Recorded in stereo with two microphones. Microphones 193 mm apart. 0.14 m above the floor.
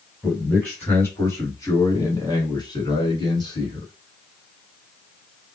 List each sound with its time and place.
0.2 s a man speaking: 10° left (ahead or behind), 1.7 m; by 3.9 s 25° left (ahead or behind), 1.7 m